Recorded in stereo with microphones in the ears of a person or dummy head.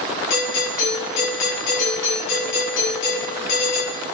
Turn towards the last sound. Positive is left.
turn(degrees=65)  # may be behind; listen again after turning